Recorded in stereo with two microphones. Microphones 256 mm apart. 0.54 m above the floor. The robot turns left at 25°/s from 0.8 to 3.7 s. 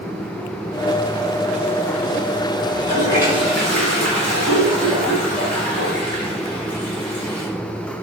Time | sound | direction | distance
2.7 | a toilet flushing | 20° right (ahead or behind) | 3.5 m